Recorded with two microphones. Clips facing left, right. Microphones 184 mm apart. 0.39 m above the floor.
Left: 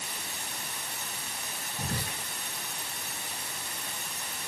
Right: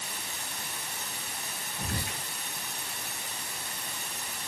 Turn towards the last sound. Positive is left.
turn(degrees=40)  # may be behind; listen again after turning